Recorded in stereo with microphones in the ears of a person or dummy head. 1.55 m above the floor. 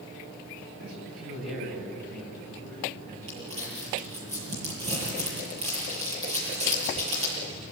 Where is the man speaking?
65° right (ahead or behind), 8 m; by 4.3 s 40° right (ahead or behind), 9 m.